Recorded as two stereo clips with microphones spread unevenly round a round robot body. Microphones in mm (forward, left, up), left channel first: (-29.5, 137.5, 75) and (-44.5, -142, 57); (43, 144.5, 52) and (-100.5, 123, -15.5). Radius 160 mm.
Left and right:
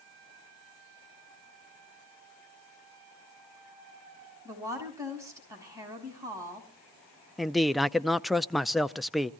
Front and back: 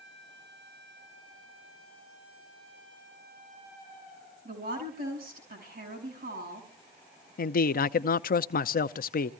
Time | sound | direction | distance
4.5 | a woman speaking | 170° right | 7 m
7.4 | a man speaking | 10° right | 0.5 m